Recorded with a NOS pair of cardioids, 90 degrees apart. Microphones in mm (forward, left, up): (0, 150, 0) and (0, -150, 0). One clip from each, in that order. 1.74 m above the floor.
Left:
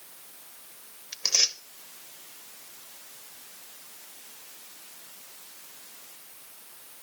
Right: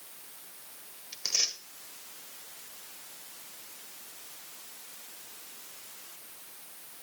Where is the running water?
I don't hear running water.